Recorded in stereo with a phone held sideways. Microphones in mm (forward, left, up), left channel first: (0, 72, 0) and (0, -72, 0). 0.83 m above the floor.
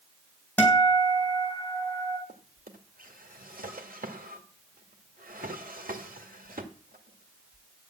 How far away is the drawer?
About 2 m.